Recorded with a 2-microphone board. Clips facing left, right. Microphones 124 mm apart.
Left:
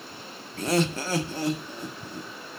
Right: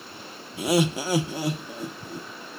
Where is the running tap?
No running tap in this recording.